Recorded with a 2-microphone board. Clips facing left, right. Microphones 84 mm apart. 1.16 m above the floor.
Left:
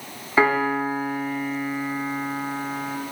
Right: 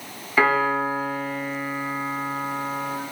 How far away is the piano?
About 0.8 m.